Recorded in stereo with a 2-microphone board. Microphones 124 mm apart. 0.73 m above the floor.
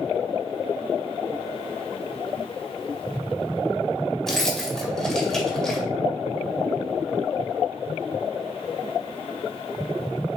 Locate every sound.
4.3 s keys jangling: 5° left (ahead or behind), 2 m